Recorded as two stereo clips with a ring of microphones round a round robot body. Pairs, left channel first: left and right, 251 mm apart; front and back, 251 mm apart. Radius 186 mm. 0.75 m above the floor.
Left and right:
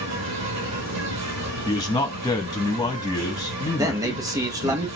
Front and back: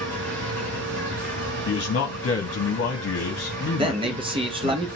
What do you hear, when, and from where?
0.0 s an insect: 85° right, 2 m
1.7 s a man speaking: 20° left, 1.1 m
3.8 s a man speaking: 145° right, 0.8 m